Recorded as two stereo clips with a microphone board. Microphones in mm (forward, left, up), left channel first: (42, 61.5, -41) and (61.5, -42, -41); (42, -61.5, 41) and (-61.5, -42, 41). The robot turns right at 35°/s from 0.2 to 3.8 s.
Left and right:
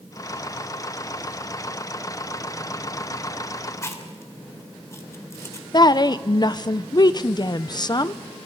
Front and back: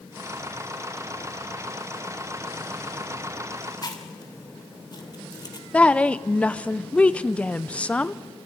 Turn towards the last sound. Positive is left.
turn(degrees=65)